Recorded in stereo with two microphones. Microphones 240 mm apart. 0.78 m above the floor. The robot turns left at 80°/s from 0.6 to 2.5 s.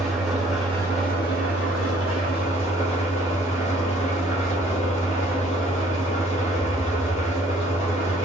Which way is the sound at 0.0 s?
Straight behind.